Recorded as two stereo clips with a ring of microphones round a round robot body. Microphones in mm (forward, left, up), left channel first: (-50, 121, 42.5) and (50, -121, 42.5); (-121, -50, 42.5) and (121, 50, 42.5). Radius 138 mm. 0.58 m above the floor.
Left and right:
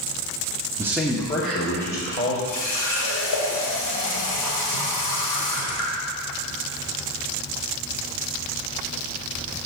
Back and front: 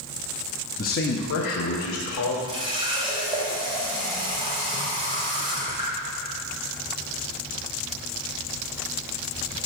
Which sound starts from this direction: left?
A running tap, at 2.5 s.